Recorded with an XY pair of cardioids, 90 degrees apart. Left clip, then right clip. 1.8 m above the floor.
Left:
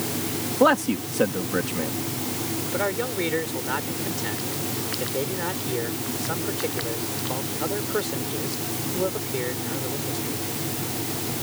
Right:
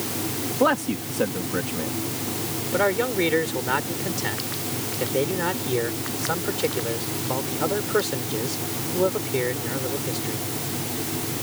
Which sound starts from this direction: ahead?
A man speaking, at 0.6 s.